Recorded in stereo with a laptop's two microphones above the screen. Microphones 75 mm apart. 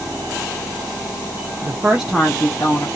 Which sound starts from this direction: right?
A woman speaking, at 1.6 s.